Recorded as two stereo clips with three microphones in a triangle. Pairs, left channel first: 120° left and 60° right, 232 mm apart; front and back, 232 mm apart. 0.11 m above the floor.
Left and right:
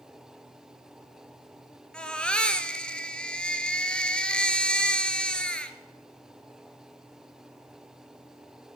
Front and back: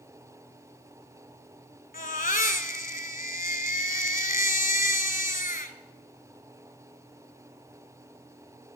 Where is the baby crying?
35° left, 1.1 m.